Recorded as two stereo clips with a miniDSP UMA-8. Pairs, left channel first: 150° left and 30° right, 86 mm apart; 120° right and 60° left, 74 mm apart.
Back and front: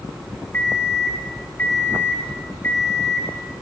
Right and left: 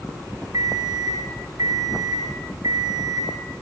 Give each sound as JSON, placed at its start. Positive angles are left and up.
{"t": 0.5, "sound": "an alarm clock", "azimuth_deg": 90, "distance_m": 9.0}